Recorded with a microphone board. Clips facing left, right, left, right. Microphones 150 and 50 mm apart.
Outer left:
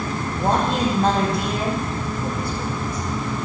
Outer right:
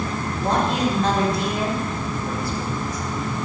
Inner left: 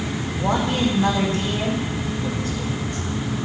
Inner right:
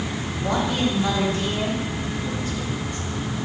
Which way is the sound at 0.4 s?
55° left (ahead or behind).